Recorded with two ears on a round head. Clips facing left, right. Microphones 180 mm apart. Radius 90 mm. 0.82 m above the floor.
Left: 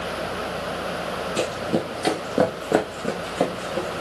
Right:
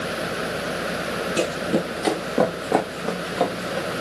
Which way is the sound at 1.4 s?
15° right (ahead or behind).